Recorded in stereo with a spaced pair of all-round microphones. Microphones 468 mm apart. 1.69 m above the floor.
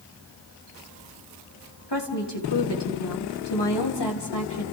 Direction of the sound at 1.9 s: 60° left (ahead or behind).